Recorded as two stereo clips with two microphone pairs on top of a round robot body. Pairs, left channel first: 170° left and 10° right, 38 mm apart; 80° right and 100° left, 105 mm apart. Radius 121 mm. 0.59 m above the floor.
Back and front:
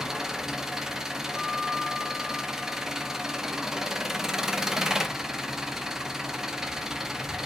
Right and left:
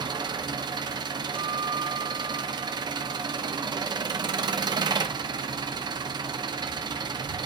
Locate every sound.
0.0 s an engine running: 70° left, 0.7 m
1.4 s a guitar: 70° left, 0.7 m